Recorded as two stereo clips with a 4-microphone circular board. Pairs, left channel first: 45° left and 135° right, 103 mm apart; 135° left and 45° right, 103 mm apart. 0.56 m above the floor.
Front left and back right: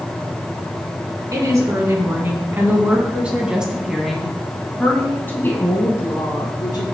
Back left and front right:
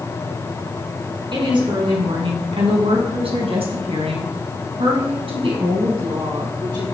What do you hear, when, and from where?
1.3 s a woman speaking: 80° right, 5 m; by 6.8 s straight ahead, 4 m